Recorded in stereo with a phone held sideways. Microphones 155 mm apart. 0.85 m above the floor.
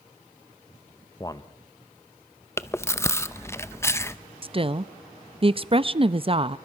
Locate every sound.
1.2 s a man speaking: 25° left (ahead or behind), 0.7 m
2.6 s chewing: 15° left (ahead or behind), 0.7 m
4.4 s a woman speaking: 35° right (ahead or behind), 0.6 m